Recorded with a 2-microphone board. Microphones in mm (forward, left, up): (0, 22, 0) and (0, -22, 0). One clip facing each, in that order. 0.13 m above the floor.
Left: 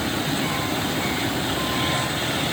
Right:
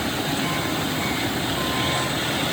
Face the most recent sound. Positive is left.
No sound to turn to.